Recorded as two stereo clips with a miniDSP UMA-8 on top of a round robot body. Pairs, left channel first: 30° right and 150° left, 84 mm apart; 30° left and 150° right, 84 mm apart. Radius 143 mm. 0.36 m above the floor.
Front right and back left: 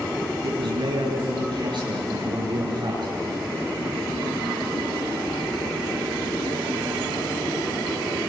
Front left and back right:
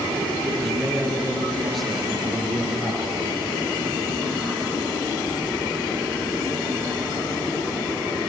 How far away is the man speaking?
About 9.5 m.